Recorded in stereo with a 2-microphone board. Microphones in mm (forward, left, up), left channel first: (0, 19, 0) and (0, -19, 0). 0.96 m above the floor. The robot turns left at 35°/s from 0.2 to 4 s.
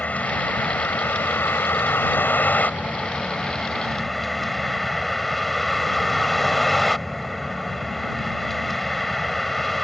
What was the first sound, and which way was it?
A vehicle, 135° left.